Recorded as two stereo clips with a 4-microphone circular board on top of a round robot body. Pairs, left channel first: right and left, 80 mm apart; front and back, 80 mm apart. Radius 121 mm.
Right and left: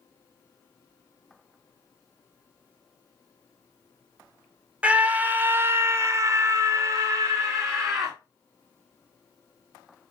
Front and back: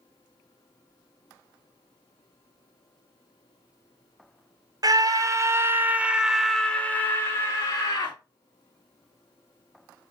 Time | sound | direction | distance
4.8 | a scream | 160° left | 1.0 m